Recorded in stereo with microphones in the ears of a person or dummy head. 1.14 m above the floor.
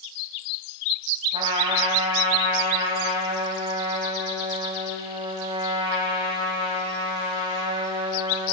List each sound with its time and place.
1.3 s a trumpet: 25° right (ahead or behind), 1.3 m